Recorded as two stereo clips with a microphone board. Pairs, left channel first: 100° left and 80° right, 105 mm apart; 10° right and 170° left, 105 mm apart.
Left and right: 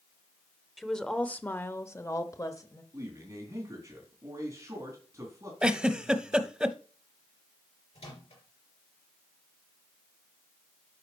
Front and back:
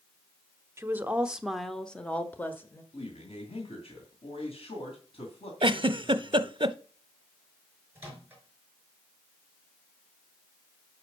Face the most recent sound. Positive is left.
turn(degrees=100)